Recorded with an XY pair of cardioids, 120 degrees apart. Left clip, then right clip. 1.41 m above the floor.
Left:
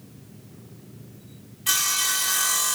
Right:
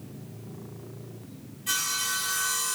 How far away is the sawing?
About 1.0 m.